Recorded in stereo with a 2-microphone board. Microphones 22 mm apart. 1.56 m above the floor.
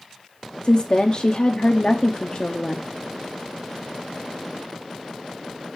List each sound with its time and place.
0.6 s a woman speaking: 35° left (ahead or behind), 0.7 m